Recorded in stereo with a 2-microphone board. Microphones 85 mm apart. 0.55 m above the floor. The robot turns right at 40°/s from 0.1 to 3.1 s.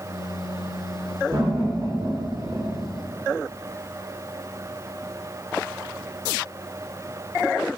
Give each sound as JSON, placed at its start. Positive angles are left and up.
{"t": 1.3, "sound": "laughter", "side_deg": -55, "distance_m": 1.8}